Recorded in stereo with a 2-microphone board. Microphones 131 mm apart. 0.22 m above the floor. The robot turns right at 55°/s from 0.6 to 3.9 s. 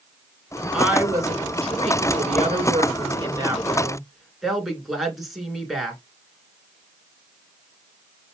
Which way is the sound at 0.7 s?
175° right.